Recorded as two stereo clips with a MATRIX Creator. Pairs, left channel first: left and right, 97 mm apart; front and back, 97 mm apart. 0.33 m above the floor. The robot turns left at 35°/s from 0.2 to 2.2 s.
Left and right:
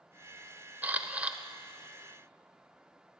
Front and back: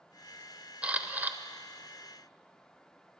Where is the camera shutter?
125° right, 0.5 m; by 1.4 s 145° right, 0.5 m.